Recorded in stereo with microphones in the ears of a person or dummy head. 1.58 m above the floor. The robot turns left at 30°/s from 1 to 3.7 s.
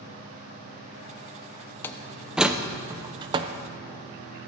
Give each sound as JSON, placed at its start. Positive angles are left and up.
{"t": 1.8, "sound": "a door slam", "side_deg": 10, "distance_m": 0.7}